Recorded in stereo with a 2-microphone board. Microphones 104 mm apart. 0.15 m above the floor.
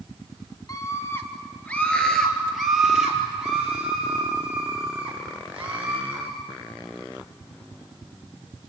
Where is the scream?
35° left (ahead or behind), 1.8 m; by 6.2 s 15° right (ahead or behind), 8 m.